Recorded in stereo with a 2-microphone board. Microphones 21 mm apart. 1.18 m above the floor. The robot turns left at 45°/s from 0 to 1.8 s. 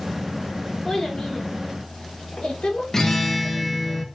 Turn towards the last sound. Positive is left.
turn(degrees=25)  # may be behind; listen again after turning